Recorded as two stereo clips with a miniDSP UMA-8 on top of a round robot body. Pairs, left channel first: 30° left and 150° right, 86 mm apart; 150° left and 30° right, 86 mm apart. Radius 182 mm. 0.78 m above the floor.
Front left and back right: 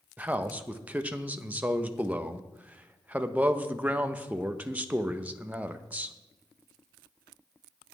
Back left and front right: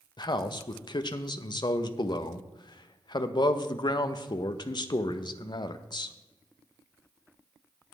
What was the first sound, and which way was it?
A man speaking, 140° left.